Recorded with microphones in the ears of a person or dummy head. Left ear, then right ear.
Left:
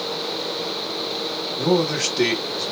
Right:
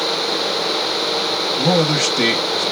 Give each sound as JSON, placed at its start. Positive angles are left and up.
{"t": 1.6, "sound": "a man speaking", "side_deg": -25, "distance_m": 1.2}